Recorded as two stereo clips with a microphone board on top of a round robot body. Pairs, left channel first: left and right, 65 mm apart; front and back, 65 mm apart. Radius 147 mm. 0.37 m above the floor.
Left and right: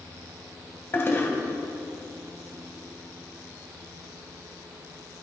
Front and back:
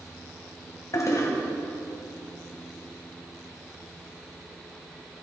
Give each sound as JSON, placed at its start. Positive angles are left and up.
{"t": 0.9, "sound": "a toilet flushing", "azimuth_deg": 35, "distance_m": 2.5}